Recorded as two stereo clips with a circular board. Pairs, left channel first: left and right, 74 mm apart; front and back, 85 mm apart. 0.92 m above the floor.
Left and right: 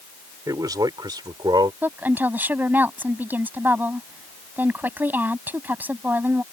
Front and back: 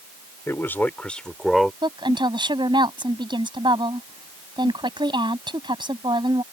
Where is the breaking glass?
I don't hear breaking glass.